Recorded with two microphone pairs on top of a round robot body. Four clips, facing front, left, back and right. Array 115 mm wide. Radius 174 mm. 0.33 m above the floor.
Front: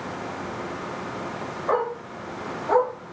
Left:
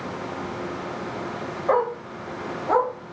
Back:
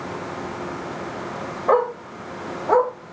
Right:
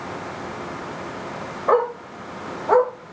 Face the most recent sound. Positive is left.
turn(degrees=-95)